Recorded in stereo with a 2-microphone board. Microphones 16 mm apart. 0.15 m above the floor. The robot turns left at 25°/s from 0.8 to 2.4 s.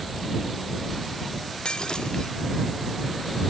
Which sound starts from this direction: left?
Breaking glass, at 1.6 s.